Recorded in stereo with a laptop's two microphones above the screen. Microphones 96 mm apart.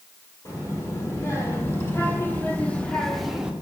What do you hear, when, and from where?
0.5 s a child speaking: 35° left (ahead or behind), 2.5 m; by 3.5 s 10° right (ahead or behind), 0.7 m